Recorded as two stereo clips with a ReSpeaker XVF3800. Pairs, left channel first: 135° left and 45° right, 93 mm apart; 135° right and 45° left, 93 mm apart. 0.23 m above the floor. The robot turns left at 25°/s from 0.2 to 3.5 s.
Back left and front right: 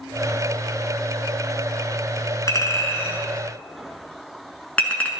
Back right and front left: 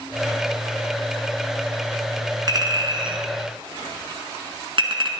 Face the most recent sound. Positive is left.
turn(degrees=60)